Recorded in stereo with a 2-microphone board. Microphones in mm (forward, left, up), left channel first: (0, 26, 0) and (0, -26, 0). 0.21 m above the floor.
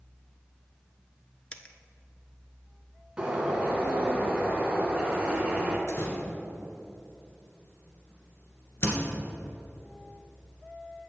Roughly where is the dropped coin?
Left.